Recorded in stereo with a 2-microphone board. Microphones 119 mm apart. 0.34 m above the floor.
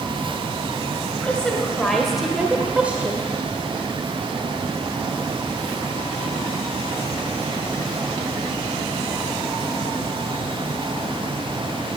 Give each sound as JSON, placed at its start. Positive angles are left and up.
{"t": 1.2, "sound": "a woman speaking", "side_deg": 10, "distance_m": 2.0}